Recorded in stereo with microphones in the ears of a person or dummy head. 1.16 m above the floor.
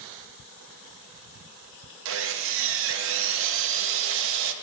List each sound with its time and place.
2.0 s sawing: 65° right (ahead or behind), 0.5 m